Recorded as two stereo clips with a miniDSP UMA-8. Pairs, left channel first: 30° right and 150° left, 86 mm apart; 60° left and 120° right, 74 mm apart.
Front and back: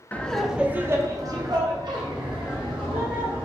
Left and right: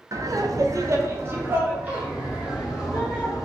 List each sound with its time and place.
0.1 s laughter: 95° right, 0.5 m; by 3.4 s 165° left, 1.7 m